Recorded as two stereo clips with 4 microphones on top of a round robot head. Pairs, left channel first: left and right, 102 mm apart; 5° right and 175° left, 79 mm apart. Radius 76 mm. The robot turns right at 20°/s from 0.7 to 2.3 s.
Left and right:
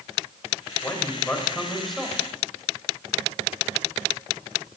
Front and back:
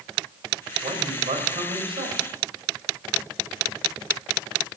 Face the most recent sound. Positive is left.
turn(degrees=-170)